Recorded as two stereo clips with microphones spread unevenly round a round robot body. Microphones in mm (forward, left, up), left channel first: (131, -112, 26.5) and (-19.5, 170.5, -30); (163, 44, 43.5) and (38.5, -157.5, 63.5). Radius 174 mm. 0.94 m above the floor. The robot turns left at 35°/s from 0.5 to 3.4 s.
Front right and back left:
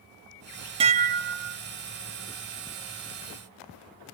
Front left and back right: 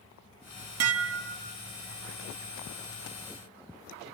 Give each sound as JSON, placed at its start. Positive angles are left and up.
{"t": 0.8, "sound": "dishes clattering", "azimuth_deg": -165, "distance_m": 0.7}